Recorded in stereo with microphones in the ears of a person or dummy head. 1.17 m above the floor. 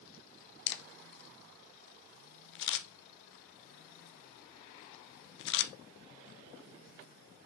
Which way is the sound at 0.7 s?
60° left (ahead or behind).